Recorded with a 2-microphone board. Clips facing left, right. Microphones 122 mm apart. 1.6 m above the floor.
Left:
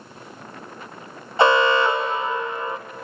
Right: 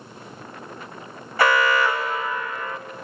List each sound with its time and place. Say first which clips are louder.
1.4 s an alarm: left 3 dB; 20° left (ahead or behind), 0.6 m